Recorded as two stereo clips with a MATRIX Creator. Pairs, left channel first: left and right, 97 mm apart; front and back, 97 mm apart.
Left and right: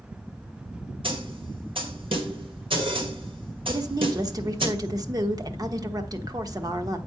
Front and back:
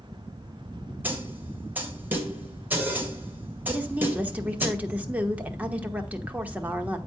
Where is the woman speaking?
110° right, 1.1 m.